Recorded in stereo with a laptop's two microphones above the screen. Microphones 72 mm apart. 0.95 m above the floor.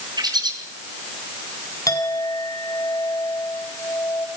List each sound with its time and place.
0.2 s a bird: 75° right (ahead or behind), 4.5 m
1.9 s a clink: 55° left (ahead or behind), 4 m